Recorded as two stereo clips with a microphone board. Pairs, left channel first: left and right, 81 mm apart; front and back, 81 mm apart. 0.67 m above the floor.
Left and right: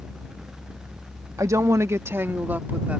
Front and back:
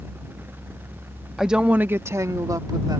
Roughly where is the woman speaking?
Right.